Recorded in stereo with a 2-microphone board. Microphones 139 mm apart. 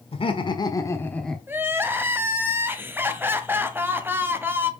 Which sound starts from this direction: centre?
Crying, at 1.5 s.